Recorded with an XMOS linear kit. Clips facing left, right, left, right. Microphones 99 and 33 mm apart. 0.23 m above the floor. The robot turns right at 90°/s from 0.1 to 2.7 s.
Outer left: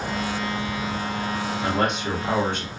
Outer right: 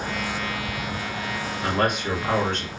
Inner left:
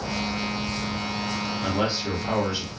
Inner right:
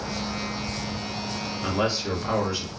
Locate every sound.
1.6 s a man speaking: 20° left (ahead or behind), 1.2 m; by 2.7 s 15° left (ahead or behind), 1.2 m